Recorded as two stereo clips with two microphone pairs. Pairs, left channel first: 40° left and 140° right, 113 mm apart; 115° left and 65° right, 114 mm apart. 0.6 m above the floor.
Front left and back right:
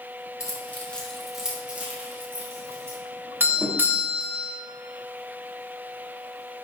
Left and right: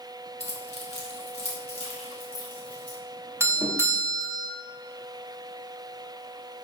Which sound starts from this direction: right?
A doorbell, at 3.4 s.